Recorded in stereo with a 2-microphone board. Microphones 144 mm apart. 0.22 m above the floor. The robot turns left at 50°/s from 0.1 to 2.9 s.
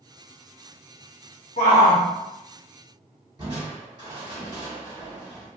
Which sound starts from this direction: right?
Crushing, at 3.4 s.